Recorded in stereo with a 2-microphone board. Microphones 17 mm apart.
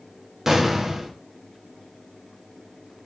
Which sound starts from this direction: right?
An explosion, at 0.5 s.